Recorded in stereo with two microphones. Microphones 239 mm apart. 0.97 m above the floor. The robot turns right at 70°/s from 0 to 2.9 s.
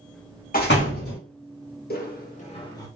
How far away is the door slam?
About 0.9 m.